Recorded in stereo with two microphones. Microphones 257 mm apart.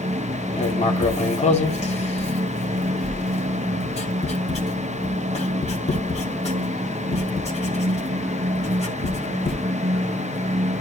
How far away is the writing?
About 2.5 m.